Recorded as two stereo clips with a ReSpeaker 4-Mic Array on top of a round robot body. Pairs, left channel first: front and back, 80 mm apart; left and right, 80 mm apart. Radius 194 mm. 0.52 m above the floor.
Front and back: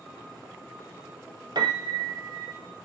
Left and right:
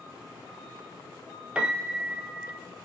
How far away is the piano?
About 0.5 m.